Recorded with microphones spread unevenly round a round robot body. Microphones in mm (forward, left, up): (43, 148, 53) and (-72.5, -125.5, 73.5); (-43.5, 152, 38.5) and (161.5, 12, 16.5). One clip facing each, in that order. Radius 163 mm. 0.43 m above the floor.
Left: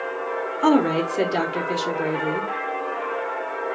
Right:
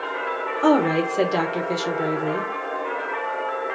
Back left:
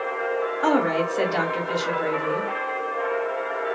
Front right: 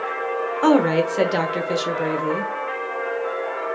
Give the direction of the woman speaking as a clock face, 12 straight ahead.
1 o'clock.